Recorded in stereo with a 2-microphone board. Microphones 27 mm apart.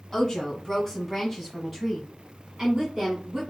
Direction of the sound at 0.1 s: 20° left (ahead or behind).